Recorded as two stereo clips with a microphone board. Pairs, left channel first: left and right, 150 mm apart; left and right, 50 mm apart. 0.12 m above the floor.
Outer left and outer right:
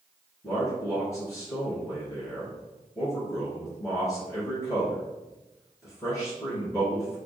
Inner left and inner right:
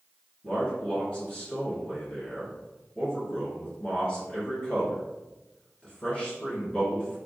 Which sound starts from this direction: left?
A man speaking, at 0.4 s.